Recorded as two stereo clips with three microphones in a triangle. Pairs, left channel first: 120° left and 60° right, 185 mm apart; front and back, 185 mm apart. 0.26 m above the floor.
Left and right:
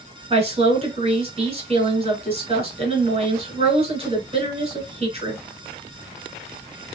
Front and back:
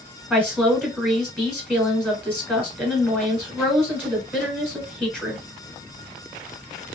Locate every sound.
0.3 s a woman speaking: 85° right, 1.6 m